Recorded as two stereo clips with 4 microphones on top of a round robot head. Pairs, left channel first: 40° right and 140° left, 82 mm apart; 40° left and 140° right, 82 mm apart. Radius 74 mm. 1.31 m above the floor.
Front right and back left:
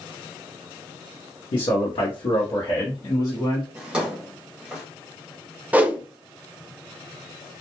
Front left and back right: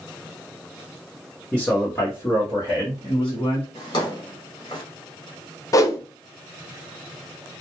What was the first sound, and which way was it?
A man speaking, 40° right.